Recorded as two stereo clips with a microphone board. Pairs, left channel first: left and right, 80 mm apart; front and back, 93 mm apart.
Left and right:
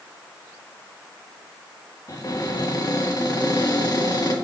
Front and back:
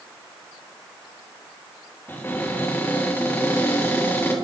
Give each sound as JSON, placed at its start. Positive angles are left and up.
{"t": 2.1, "sound": "a cupboard door", "azimuth_deg": 60, "distance_m": 2.5}